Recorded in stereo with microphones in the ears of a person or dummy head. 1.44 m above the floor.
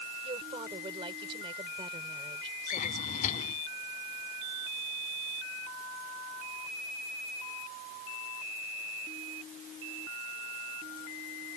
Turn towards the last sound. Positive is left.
turn(degrees=45)  # may be behind; listen again after turning